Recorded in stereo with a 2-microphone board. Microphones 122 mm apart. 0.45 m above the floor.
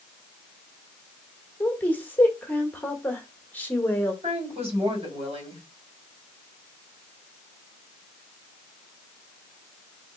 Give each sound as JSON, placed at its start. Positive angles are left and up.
{"t": 1.6, "sound": "a woman speaking", "side_deg": 15, "distance_m": 1.3}
{"t": 4.2, "sound": "a woman speaking", "side_deg": -55, "distance_m": 2.5}